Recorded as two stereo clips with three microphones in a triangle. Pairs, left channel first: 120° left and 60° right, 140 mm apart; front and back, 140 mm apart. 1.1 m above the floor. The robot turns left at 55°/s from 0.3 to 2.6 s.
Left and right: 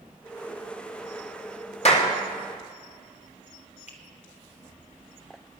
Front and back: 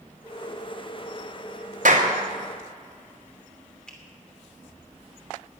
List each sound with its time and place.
1.9 s a clap: 160° left, 2 m; by 2.1 s 145° left, 2 m
3.9 s a finger snap: 85° left, 2.5 m